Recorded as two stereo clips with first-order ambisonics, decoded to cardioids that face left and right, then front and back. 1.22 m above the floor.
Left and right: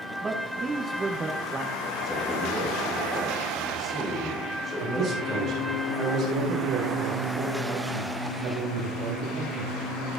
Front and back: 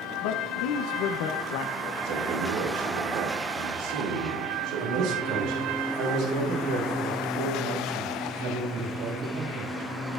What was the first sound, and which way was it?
A man speaking, 15° right.